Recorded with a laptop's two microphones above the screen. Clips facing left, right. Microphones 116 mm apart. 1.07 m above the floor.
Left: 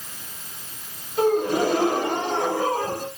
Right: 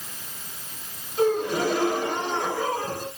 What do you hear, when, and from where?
1.2 s a gasp: 55° left (ahead or behind), 1.6 m